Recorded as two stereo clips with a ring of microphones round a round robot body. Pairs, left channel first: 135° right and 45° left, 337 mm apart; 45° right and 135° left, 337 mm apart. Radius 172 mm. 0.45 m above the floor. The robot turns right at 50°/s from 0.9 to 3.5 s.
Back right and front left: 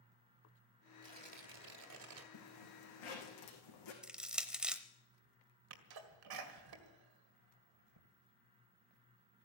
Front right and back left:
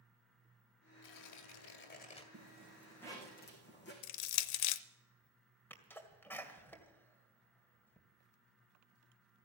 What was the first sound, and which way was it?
Tearing paper, 30° right.